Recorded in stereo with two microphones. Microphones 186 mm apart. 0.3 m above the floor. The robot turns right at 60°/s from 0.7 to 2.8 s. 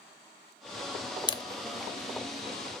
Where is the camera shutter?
25° left (ahead or behind), 0.6 m.